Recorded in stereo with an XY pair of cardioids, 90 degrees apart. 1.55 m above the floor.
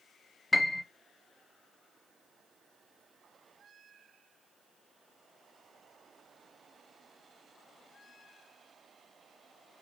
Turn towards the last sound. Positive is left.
turn(degrees=15)